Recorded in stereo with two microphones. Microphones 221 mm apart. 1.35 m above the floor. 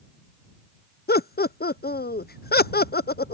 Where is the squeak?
I don't hear a squeak.